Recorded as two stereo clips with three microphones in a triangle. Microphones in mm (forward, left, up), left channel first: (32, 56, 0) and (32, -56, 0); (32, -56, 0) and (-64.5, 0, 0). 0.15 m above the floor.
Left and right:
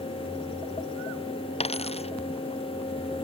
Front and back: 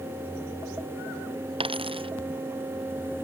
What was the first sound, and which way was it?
A dropped coin, 115° left.